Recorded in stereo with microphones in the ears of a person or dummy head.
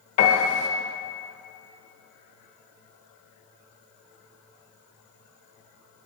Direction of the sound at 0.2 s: 40° left (ahead or behind).